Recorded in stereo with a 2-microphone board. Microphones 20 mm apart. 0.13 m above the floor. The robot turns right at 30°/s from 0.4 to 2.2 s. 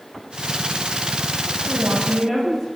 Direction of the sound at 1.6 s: 20° right (ahead or behind).